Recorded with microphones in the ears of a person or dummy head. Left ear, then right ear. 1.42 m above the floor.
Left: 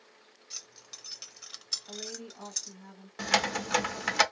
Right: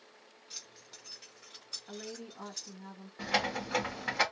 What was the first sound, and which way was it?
Keys jangling, 5° left (ahead or behind).